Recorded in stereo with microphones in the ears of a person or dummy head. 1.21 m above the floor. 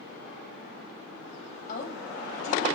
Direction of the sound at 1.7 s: 50° left (ahead or behind).